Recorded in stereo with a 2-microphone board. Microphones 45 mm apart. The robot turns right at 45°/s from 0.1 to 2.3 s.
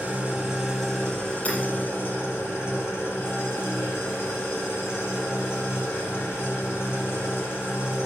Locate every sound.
0.0 s an engine running: 30° right, 5 m; by 8.1 s 70° left, 5 m
1.4 s hammering: 35° left (ahead or behind), 5.5 m; by 1.6 s 40° left (ahead or behind), 5.5 m